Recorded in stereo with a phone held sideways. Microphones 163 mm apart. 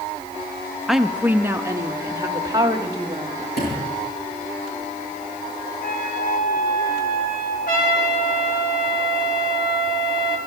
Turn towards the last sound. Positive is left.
turn(degrees=60)  # may be behind; listen again after turning